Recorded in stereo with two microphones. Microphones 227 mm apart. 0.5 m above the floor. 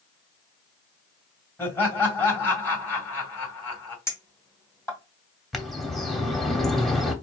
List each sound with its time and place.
1.6 s laughter: 10° left (ahead or behind), 2 m
4.1 s a clink: 10° left (ahead or behind), 2.5 m
5.5 s a bird: centre (ahead or behind), 0.8 m